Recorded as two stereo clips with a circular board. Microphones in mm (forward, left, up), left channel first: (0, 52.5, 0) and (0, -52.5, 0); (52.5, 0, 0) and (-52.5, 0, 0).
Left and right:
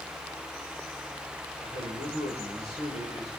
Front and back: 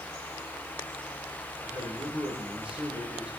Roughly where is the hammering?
No hammering in this recording.